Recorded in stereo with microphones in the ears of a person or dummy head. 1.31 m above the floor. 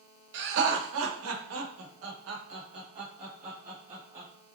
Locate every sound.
0.3 s laughter: 60° right (ahead or behind), 1.2 m; by 4.3 s 35° right (ahead or behind), 2.0 m